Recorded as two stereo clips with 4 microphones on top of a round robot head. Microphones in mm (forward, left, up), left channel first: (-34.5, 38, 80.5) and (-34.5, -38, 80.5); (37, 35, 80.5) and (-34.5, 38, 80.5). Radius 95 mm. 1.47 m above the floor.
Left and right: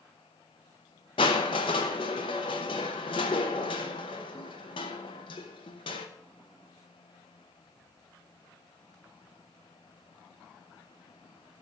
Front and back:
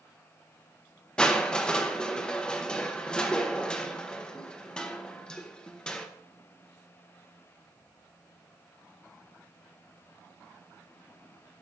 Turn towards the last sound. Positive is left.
turn(degrees=75)